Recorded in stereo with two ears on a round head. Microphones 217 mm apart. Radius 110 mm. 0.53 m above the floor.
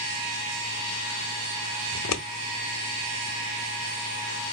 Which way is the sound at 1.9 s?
65° left (ahead or behind).